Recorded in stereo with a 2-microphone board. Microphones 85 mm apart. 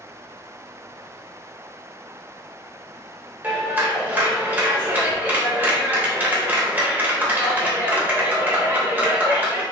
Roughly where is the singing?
I don't hear singing.